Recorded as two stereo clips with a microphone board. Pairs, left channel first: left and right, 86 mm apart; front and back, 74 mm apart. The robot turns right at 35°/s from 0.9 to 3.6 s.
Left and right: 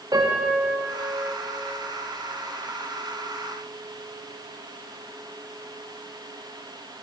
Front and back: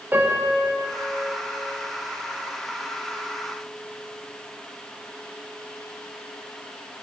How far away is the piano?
About 4 m.